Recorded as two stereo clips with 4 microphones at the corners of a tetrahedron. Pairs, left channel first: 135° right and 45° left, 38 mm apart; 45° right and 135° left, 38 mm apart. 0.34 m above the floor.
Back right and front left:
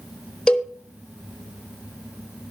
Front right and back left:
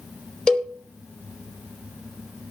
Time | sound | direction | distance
0.5 | a cowbell | 100° right | 1.0 m